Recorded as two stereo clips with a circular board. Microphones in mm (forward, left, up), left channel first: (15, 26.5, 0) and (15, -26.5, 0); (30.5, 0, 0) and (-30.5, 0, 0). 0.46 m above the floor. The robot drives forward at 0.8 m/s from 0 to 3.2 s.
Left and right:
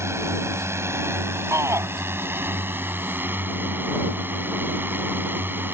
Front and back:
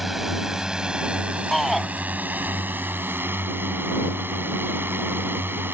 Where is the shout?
90° right; by 1.9 s 95° right.